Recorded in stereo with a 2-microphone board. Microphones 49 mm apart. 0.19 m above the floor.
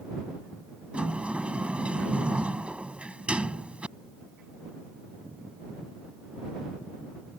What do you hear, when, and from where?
0.9 s a sliding door: 25° right (ahead or behind)